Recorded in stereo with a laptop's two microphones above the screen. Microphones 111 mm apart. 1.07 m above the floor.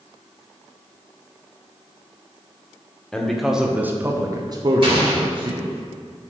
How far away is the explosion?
About 2 m.